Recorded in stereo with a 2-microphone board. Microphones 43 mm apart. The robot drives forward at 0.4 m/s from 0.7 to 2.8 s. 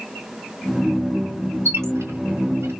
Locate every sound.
1.6 s a squeak: 80° right, 1.0 m; by 2.7 s 75° right (ahead or behind), 1.0 m